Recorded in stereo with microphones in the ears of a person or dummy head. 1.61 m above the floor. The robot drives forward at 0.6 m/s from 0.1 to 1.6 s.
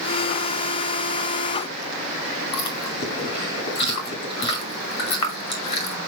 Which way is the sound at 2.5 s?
25° left (ahead or behind).